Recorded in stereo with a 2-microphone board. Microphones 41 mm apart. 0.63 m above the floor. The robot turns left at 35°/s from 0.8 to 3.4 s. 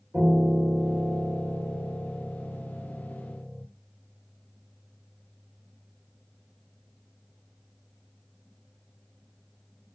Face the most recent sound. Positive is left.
turn(degrees=150)